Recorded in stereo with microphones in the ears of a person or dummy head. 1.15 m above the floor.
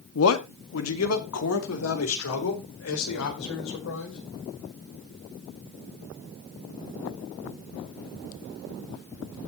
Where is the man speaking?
75° left (ahead or behind), 1.9 m.